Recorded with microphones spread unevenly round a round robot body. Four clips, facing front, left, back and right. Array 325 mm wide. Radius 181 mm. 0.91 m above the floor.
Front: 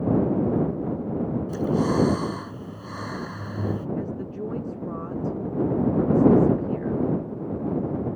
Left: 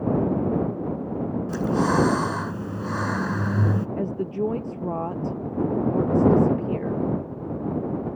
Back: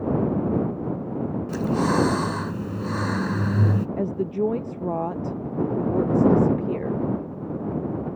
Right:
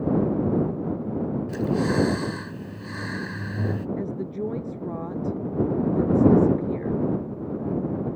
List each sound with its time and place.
1.5 s breathing: 150° left
4.0 s a woman speaking: 160° left